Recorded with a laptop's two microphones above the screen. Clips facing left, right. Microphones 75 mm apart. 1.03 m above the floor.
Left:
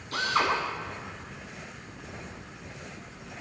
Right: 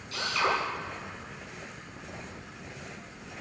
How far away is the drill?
About 7.5 m.